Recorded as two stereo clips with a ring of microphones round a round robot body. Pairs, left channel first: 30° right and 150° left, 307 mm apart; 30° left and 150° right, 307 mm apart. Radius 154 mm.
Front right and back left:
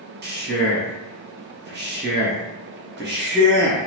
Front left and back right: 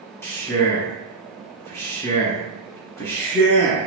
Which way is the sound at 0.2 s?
110° left.